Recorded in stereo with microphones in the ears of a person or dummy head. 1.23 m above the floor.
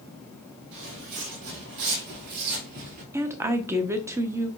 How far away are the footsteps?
About 2.5 m.